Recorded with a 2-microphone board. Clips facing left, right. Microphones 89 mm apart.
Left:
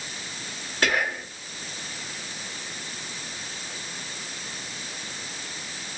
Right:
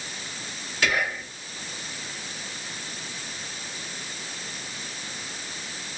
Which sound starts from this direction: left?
Whispering, at 0.8 s.